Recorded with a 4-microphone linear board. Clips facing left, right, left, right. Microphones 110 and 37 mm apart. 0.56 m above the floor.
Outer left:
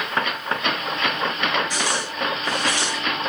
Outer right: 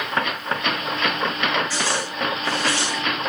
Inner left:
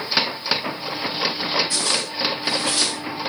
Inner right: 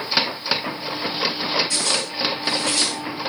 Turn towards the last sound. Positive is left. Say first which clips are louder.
# even, even
turn(degrees=20)  # may be behind; listen again after turning